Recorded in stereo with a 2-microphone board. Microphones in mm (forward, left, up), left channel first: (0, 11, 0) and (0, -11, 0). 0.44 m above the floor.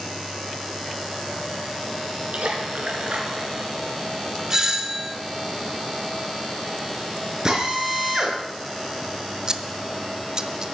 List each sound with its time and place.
2.3 s a splash: 75° right (ahead or behind), 3 m
4.5 s a doorbell: 25° right (ahead or behind), 1.6 m
7.5 s a drill: 30° right (ahead or behind), 3.5 m
9.5 s scissors: 30° right (ahead or behind), 0.8 m